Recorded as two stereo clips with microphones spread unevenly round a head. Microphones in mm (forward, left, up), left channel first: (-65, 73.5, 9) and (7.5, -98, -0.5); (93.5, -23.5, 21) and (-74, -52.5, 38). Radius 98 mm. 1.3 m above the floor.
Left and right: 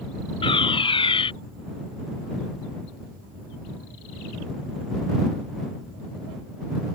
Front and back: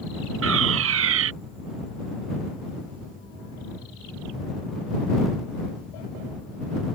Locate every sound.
0.4 s a fire alarm: 175° left